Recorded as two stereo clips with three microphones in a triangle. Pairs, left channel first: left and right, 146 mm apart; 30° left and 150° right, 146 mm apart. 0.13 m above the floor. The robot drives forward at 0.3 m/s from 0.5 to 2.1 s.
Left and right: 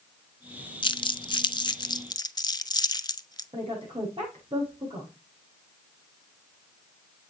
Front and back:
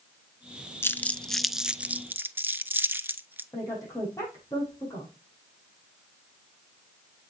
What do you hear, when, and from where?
0.8 s crumpling: 90° left, 0.6 m; by 3.4 s 140° left, 0.7 m
3.5 s a woman speaking: 40° right, 6 m